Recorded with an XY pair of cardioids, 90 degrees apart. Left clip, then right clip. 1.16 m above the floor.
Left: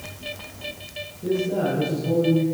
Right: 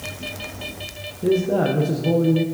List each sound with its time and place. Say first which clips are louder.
1.2 s a man speaking: right 4 dB; 65° right, 0.7 m